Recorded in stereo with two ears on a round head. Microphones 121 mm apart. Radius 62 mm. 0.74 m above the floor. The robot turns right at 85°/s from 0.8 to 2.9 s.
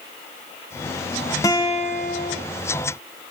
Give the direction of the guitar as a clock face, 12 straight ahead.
11 o'clock.